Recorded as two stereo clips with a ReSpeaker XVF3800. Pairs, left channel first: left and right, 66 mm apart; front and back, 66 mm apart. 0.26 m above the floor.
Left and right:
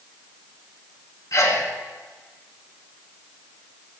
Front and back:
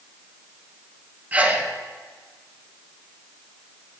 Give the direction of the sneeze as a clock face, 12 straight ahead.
8 o'clock.